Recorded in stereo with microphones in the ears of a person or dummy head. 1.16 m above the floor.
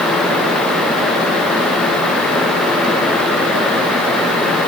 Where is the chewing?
I don't hear chewing.